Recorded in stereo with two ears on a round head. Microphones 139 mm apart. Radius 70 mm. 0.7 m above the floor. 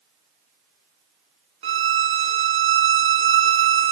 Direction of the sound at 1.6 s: 35° right (ahead or behind).